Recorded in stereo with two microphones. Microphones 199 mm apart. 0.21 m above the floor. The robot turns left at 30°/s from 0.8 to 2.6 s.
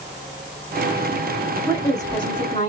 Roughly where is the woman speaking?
Centre.